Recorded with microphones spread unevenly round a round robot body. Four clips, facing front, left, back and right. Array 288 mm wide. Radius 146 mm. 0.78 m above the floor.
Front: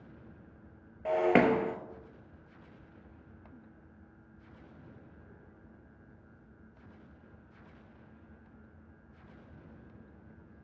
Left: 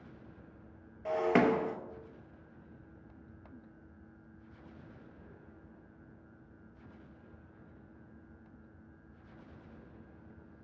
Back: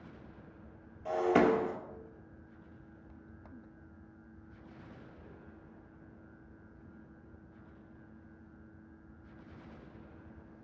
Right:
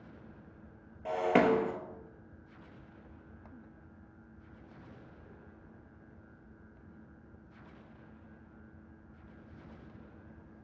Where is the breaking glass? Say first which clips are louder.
Right 1 dB, front 2 dB; 10° left, 0.9 m.